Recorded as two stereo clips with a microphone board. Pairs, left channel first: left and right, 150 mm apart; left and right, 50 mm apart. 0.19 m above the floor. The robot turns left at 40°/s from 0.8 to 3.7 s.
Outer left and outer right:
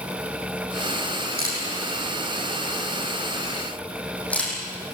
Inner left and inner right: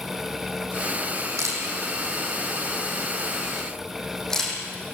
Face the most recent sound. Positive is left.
turn(degrees=10)  # may be behind; listen again after turning